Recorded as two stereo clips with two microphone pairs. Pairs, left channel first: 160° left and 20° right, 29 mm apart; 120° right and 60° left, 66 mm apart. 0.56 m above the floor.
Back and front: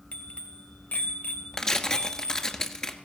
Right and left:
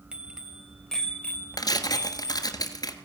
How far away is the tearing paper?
About 1.7 m.